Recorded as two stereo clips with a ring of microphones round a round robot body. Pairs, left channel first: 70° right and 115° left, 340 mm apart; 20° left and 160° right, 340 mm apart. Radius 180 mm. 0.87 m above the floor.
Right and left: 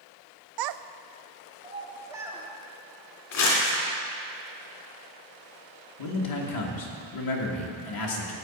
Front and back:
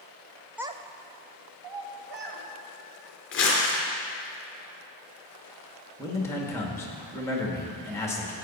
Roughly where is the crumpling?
Ahead right.